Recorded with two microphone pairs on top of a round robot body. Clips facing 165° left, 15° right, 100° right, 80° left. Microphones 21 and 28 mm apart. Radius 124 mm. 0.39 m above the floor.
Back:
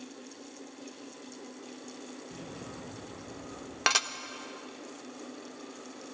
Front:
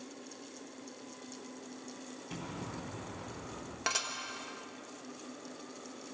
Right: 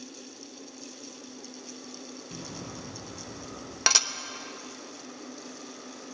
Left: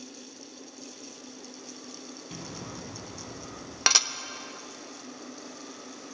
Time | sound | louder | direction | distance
2.3 | an explosion | front 5 dB, left 1 dB | 25° left | 3.5 m
3.9 | dishes clattering | back 7 dB, left 1 dB | 160° left | 1.0 m